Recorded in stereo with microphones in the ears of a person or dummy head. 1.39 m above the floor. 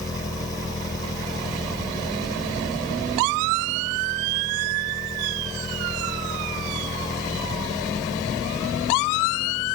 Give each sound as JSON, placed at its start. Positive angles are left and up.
{"t": 0.0, "sound": "an engine running", "side_deg": 20}